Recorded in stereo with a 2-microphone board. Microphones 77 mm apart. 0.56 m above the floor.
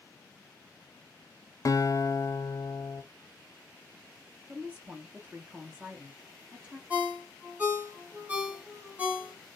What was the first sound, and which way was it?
A guitar, 45° left (ahead or behind).